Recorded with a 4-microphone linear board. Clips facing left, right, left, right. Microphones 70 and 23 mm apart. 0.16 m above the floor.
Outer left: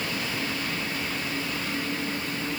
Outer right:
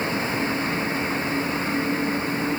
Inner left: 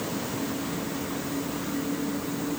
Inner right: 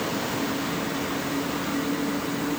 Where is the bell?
I don't hear a bell.